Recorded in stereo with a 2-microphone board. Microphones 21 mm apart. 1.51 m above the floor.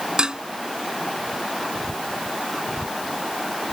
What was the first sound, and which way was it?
Dishes clattering, 40° right (ahead or behind).